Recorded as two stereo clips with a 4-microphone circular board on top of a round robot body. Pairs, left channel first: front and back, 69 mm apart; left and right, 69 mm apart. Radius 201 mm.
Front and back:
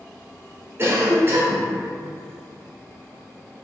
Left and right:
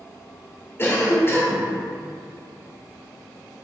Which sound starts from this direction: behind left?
A cough, at 0.8 s.